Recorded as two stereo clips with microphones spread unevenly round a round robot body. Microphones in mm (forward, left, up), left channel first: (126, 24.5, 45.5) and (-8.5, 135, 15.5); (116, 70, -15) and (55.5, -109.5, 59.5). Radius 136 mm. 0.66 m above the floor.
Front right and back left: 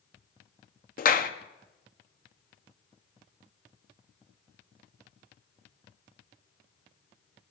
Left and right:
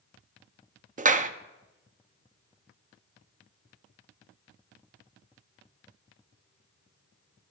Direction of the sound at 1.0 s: 50° right.